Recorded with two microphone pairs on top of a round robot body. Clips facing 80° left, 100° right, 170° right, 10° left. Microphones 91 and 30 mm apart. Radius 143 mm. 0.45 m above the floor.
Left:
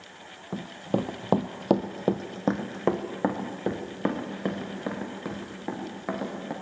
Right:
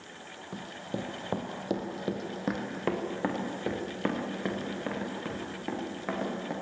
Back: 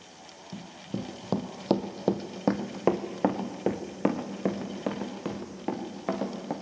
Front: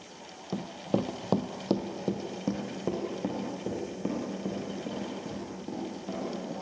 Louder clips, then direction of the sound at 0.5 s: Left 9 dB, front 7 dB; 25° left.